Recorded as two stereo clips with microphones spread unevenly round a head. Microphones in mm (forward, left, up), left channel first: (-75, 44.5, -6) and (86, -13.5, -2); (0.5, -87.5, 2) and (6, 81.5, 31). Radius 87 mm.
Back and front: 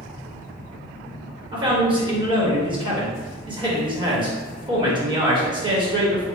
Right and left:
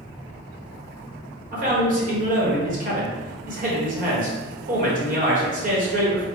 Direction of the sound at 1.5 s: 45° left.